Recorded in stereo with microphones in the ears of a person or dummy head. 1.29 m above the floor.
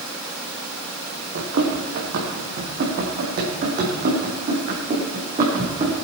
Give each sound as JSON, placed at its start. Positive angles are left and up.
{"t": 1.4, "sound": "running footsteps", "side_deg": -55, "distance_m": 4.0}